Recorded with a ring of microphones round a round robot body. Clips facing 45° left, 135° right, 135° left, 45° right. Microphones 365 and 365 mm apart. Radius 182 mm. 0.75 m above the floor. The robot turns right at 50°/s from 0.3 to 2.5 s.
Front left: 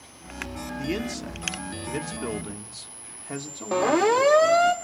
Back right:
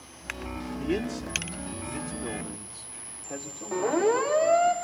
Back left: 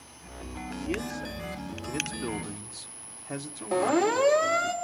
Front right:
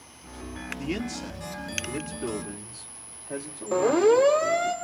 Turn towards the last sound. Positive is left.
turn(degrees=60)